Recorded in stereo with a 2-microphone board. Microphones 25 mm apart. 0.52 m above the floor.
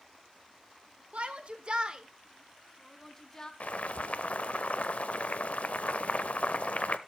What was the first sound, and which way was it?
A shout, 60° right (ahead or behind).